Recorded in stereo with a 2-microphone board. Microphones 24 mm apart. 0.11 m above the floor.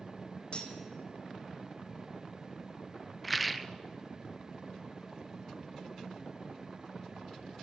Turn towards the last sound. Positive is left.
turn(degrees=-5)  # may be behind; listen again after turning